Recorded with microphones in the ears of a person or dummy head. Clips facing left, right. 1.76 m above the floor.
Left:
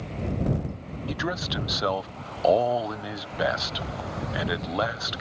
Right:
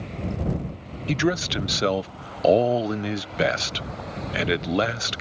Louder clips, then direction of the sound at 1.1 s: Right 8 dB; 30° right (ahead or behind).